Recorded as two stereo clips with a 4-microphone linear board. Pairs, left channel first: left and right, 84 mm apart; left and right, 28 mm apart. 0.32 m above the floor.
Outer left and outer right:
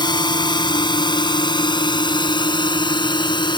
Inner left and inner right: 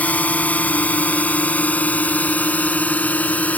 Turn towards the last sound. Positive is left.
turn(degrees=65)  # may be behind; listen again after turning